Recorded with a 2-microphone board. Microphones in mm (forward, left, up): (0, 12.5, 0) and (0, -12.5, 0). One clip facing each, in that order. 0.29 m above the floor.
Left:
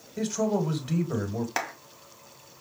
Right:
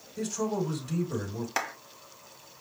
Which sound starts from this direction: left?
A man speaking, at 0.2 s.